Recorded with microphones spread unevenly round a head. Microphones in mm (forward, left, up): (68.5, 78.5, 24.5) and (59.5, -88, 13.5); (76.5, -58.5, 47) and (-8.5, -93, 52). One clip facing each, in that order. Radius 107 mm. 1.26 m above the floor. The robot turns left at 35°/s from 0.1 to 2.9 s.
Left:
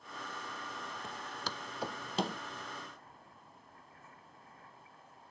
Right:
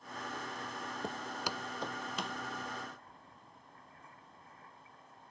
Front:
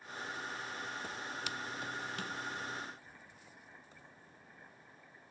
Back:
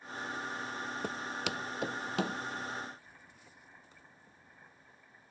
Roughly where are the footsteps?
Behind right.